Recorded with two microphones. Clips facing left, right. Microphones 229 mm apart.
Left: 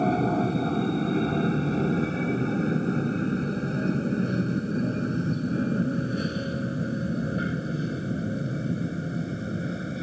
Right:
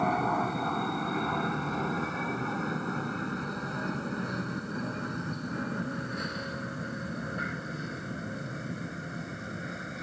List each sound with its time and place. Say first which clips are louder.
0.0 s an aircraft: left 7 dB; 30° left (ahead or behind)